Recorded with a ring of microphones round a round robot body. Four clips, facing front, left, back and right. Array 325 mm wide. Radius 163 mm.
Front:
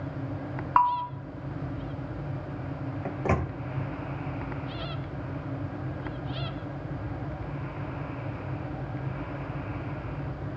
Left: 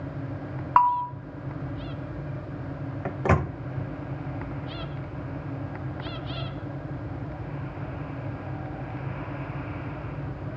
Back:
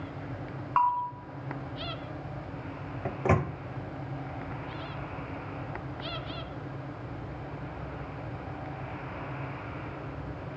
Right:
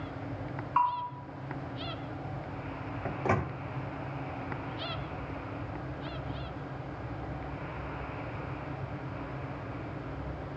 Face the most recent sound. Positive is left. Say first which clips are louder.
# left 5 dB, back 2 dB
turn(degrees=90)